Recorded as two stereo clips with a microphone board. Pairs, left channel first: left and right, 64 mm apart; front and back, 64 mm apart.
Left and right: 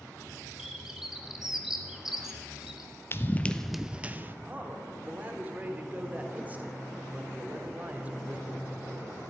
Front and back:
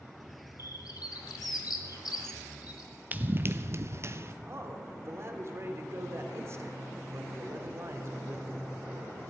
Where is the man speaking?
150° right, 1.5 m.